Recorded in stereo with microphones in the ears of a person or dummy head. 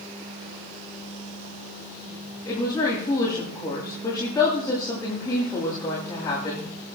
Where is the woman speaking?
20° left (ahead or behind), 8 m.